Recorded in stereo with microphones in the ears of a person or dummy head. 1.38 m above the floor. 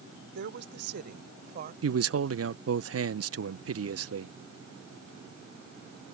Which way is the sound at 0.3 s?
55° right (ahead or behind).